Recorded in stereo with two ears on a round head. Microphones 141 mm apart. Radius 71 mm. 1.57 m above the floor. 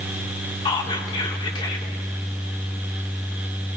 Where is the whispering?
30° left (ahead or behind), 1.6 m.